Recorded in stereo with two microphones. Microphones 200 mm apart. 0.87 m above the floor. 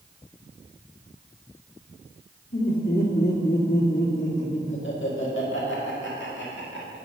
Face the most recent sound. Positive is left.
turn(degrees=60)  # may be behind; listen again after turning